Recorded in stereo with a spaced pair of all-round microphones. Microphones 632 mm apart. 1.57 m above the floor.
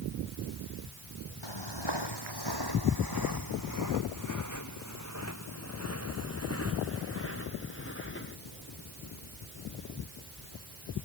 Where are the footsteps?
45° left (ahead or behind); by 8.4 s 20° left (ahead or behind).